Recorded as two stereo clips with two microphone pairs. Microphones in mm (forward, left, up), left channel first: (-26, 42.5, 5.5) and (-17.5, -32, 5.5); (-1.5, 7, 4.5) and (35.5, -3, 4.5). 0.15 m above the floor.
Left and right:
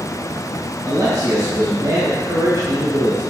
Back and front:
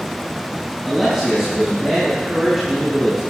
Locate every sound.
0.8 s a man speaking: 110° right, 2.5 m